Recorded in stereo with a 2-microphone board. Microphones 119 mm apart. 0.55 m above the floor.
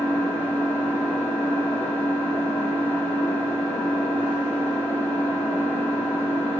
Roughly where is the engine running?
Centre.